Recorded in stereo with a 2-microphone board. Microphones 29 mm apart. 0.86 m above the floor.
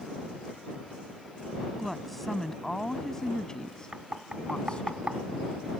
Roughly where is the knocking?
Right.